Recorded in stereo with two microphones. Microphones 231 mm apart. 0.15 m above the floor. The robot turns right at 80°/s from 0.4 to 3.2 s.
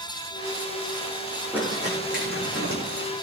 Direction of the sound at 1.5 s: 5° right (ahead or behind).